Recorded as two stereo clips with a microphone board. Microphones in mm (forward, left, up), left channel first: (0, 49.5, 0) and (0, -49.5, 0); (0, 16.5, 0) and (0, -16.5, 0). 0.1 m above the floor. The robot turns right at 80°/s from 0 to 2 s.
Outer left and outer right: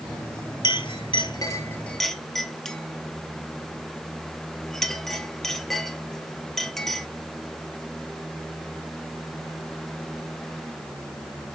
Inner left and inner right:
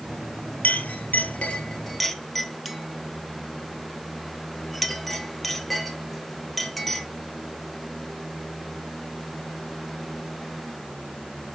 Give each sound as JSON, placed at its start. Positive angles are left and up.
{"t": 0.6, "sound": "a clink", "side_deg": 50, "distance_m": 1.8}